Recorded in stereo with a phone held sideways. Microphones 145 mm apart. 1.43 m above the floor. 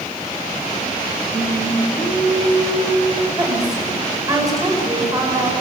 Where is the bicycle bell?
No bicycle bell in this recording.